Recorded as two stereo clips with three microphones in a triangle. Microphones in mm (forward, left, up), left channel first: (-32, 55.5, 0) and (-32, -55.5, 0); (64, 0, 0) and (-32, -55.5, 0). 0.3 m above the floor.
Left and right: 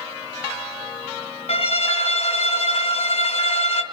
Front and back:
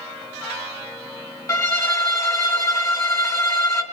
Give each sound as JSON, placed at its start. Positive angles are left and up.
{"t": 1.5, "sound": "a violin", "azimuth_deg": 85, "distance_m": 1.3}